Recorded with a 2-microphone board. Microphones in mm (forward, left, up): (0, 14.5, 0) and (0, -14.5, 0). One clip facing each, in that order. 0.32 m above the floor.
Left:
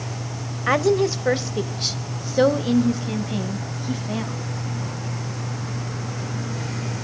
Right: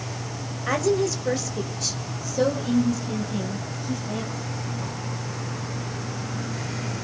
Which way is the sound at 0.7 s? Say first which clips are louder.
Left 4 dB; 30° left (ahead or behind).